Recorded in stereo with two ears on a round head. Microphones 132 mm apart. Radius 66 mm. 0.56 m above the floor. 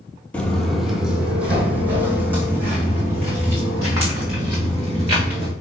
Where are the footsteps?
10° left (ahead or behind), 0.6 m; by 5.5 s 20° right (ahead or behind), 3 m.